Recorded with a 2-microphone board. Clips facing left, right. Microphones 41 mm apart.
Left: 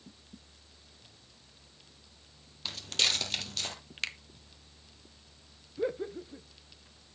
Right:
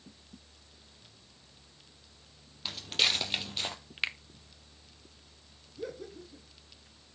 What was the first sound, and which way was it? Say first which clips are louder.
Footsteps: right 1 dB; 5° right (ahead or behind).